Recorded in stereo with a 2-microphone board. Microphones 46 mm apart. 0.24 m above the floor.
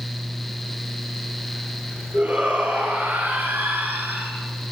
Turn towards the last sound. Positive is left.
turn(degrees=-50)  # may be behind; listen again after turning